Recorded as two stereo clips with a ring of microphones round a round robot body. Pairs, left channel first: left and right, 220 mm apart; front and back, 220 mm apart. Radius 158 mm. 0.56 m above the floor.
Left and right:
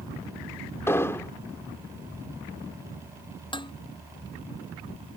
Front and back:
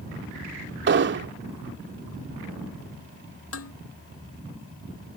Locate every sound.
0.9 s an explosion: 170° left
3.5 s dishes clattering: 20° left